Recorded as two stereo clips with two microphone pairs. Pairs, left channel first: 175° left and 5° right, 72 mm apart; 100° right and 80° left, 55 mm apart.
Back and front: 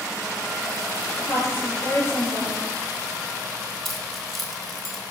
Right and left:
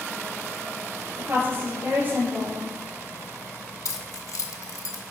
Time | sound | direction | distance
1.2 | a woman speaking | 120° left | 3.5 m
3.9 | keys jangling | 95° right | 1.1 m